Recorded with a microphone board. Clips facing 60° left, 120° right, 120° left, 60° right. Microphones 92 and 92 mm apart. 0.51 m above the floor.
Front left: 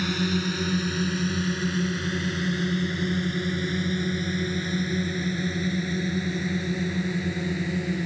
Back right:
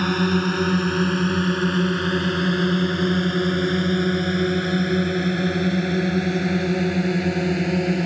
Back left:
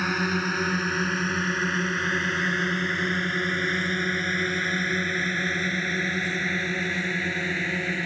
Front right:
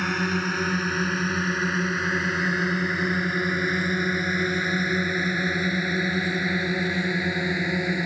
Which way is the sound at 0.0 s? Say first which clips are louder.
Back right 6 dB, even; 155° right.